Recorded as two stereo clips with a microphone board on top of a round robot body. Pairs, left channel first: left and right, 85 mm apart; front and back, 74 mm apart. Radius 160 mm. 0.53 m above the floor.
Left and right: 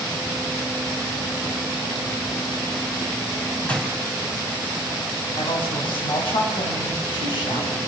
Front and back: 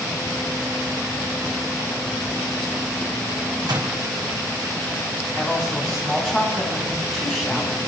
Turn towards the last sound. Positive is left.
turn(degrees=95)